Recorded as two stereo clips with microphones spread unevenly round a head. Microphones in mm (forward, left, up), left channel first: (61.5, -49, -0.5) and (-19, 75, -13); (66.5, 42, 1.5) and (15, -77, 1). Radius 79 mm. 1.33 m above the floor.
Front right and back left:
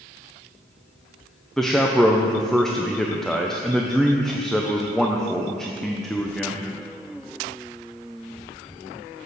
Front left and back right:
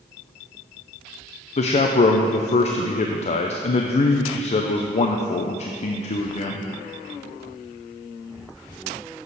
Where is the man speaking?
30° left, 0.5 m.